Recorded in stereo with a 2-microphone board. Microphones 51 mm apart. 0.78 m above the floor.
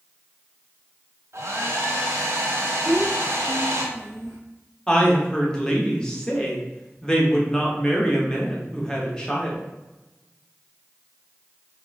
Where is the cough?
I don't hear a cough.